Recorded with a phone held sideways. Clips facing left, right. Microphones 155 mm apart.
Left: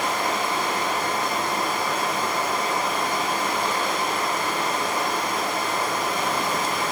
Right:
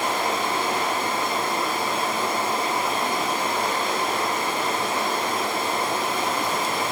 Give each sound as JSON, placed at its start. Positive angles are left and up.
{"t": 0.0, "sound": "running water", "side_deg": -30, "distance_m": 0.9}